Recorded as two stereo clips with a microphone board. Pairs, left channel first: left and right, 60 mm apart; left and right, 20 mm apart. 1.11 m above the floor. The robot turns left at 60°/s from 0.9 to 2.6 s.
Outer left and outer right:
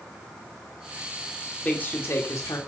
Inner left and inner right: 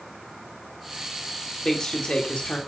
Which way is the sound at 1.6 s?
160° left.